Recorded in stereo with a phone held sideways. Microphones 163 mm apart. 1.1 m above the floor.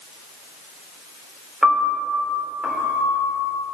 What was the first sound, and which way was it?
A piano, 5° right (ahead or behind).